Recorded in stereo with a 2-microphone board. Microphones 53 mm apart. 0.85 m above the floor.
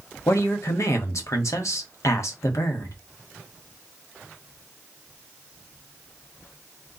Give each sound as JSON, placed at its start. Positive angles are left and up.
{"t": 0.3, "sound": "a woman speaking", "side_deg": 70, "distance_m": 1.5}